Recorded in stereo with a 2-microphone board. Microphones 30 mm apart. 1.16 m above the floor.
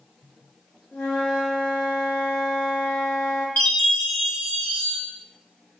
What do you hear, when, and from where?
0.9 s a flute: 50° left (ahead or behind), 1.2 m
3.6 s a chime: 65° left (ahead or behind), 0.9 m